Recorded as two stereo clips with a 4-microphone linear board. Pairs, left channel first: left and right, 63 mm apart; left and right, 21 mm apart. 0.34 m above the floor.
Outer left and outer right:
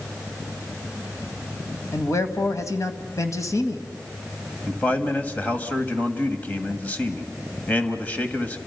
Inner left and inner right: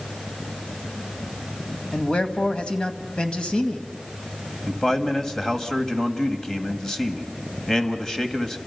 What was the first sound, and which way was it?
A man speaking, 60° left (ahead or behind).